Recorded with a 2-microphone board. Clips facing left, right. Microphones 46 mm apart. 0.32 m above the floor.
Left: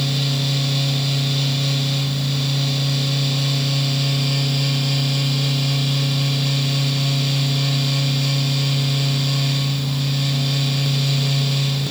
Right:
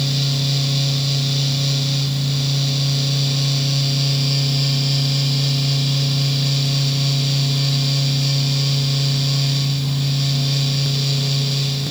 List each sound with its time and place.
Only background noise.